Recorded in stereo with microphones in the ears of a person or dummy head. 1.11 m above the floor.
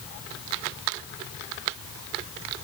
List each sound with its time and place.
Only background noise.